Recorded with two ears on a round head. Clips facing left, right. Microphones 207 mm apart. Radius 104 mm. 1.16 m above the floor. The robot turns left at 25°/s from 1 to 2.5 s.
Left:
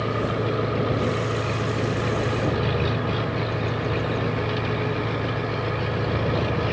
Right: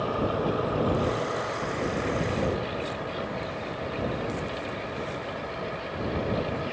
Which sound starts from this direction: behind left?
An engine running, at 0.0 s.